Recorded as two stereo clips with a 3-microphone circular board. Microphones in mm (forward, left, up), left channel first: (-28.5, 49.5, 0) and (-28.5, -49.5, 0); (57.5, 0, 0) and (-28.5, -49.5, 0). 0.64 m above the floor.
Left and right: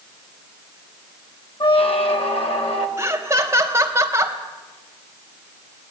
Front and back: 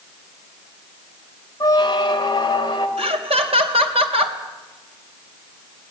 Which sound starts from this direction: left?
A squeak, at 1.6 s.